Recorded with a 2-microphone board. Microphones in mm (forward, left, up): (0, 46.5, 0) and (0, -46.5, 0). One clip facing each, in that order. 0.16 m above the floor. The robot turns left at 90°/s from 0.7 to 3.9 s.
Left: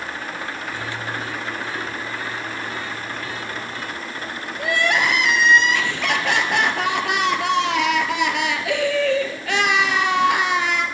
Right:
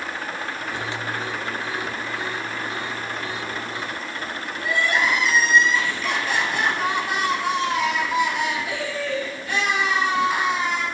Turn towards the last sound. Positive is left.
turn(degrees=70)  # may be behind; listen again after turning